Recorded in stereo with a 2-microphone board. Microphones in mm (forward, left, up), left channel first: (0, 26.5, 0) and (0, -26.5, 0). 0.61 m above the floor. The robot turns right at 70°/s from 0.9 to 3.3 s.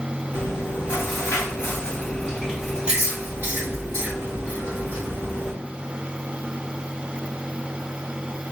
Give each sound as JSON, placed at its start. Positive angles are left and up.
{"t": 0.3, "sound": "chewing", "azimuth_deg": 65, "distance_m": 1.5}